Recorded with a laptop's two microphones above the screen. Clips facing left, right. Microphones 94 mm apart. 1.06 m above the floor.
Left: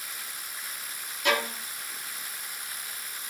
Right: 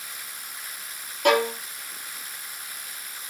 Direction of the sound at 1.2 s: 55° right (ahead or behind).